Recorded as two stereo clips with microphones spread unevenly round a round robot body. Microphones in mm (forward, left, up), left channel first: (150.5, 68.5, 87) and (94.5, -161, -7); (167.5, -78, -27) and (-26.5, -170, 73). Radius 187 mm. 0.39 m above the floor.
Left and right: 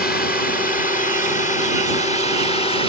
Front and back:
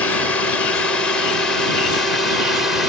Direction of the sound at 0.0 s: 20° left.